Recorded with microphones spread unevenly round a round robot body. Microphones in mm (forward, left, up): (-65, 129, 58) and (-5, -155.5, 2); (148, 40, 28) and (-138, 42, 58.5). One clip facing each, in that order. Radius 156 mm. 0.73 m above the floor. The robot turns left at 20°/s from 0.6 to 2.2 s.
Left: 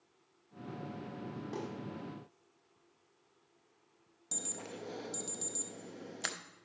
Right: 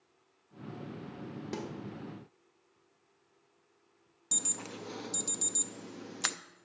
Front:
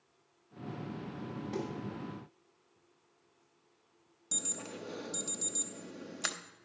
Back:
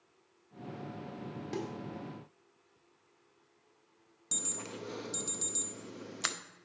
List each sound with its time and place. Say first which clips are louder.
1.5 s a snare drum: right 2 dB, even; 125° right, 1.5 m; by 1.7 s 130° right, 1.5 m
4.3 s an alarm: right 2 dB, even; 90° right, 0.5 m